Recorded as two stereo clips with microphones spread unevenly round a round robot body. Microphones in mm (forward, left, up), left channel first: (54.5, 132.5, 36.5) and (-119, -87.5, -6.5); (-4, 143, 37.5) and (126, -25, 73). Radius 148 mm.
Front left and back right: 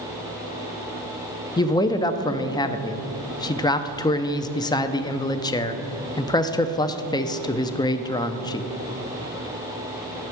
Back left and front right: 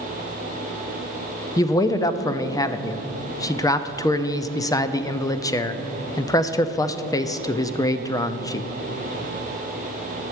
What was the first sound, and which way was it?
A man speaking, 130° left.